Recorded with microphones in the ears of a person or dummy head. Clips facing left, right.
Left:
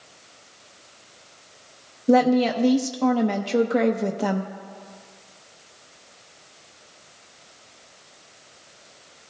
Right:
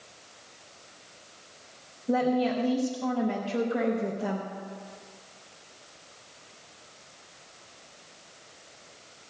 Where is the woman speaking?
80° left, 0.7 m.